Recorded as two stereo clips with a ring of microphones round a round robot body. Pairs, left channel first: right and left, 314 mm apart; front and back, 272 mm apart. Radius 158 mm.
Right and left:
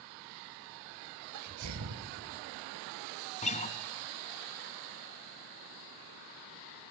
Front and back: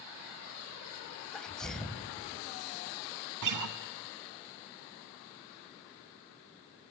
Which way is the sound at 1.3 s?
85° left.